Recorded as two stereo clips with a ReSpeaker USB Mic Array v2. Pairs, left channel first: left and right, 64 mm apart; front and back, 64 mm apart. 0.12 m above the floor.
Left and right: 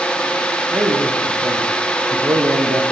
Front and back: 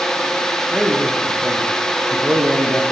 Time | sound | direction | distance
0.7 | a man speaking | 115° right | 7.5 m